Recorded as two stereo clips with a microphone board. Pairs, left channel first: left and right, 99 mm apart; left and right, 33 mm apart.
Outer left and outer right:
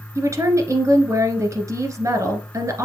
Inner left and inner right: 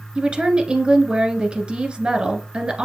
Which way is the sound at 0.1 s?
30° right (ahead or behind).